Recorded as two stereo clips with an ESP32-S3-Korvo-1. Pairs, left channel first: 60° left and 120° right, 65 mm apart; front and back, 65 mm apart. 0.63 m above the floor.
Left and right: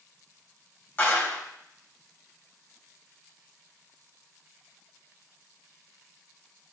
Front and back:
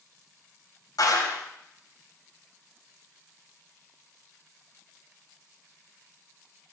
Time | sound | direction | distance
1.0 | a clap | straight ahead | 3.5 m